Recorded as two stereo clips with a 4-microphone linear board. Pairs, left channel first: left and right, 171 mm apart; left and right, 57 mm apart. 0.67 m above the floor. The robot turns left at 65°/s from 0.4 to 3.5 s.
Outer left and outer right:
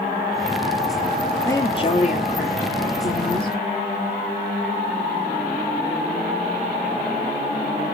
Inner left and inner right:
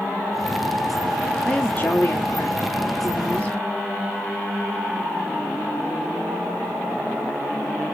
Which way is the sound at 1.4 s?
165° left.